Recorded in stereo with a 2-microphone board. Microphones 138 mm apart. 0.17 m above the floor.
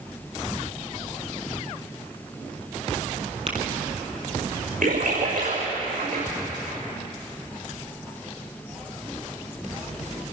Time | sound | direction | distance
3.5 | tapping | 45° right (ahead or behind) | 3 m
4.8 | a splash | 80° right | 7 m